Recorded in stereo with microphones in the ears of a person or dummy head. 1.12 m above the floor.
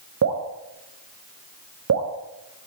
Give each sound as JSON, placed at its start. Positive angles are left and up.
{"t": 0.2, "sound": "dripping", "side_deg": -75, "distance_m": 0.9}